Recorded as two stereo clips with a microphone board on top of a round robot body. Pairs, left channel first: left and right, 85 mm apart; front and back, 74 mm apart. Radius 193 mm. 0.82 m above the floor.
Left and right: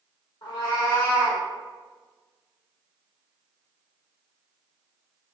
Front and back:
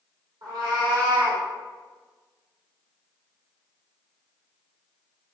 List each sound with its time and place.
0.4 s a cat meowing: 135° left, 1.6 m; by 1.4 s 155° left, 1.8 m